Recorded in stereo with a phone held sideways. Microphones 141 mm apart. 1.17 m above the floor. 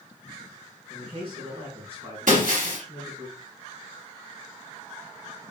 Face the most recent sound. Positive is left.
turn(degrees=-70)  # may be behind; listen again after turning